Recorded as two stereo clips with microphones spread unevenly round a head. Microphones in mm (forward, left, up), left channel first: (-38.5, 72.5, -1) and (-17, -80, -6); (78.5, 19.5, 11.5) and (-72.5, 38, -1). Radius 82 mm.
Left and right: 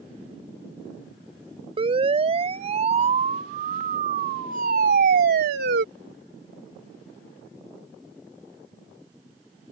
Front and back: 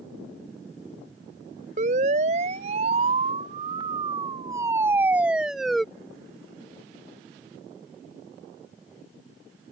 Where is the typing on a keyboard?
I don't hear typing on a keyboard.